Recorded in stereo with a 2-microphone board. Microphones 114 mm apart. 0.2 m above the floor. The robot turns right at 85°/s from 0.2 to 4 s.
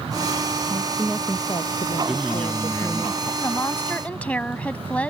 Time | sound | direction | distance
0.7 | a woman speaking | 30° right | ?
2.1 | a man speaking | 5° right (ahead or behind) | ?
3.4 | a woman speaking | 25° left (ahead or behind) | ?